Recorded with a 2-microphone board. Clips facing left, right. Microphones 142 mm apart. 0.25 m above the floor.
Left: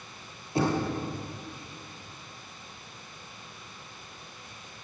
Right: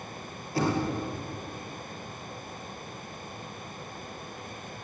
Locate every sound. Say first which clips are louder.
0.6 s knocking: left 1 dB; 25° left (ahead or behind), 5 m